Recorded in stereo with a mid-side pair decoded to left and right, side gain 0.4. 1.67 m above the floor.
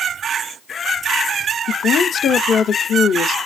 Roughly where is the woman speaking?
Left.